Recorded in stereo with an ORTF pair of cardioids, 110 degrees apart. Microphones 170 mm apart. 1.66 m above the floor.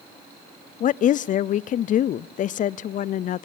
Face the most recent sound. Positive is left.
turn(degrees=50)